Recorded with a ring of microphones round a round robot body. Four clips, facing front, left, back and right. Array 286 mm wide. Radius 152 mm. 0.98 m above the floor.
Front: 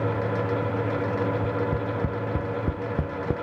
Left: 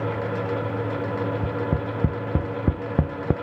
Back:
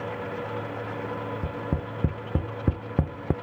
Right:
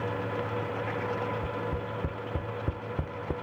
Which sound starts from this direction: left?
Tapping, at 1.4 s.